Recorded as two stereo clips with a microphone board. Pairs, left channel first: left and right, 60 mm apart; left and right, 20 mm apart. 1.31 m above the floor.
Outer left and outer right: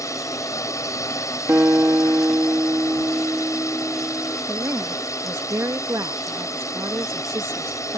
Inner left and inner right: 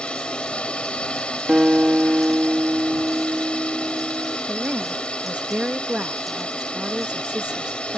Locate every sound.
0.0 s a drone: 70° left (ahead or behind)
1.5 s a guitar: 40° right (ahead or behind)
4.5 s a woman speaking: 60° right (ahead or behind)